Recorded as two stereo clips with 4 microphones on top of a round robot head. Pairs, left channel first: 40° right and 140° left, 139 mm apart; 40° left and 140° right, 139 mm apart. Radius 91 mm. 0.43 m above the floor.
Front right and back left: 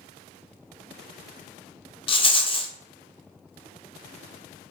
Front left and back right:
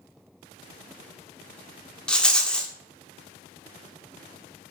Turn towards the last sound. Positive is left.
turn(degrees=-40)